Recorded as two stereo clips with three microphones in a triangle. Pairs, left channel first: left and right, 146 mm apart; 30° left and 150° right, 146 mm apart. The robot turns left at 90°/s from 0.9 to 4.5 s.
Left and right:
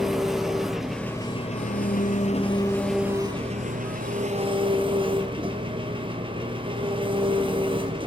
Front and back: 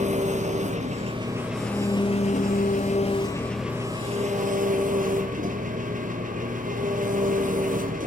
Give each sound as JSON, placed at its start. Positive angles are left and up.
{"t": 0.0, "sound": "an engine running", "azimuth_deg": 180, "distance_m": 2.5}